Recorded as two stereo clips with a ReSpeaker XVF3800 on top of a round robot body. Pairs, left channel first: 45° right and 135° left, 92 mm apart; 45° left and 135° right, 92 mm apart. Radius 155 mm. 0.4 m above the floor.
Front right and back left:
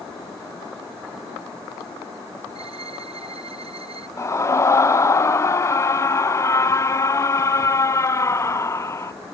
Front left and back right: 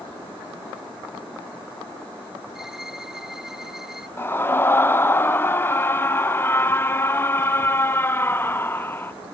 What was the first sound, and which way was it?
A violin, 140° left.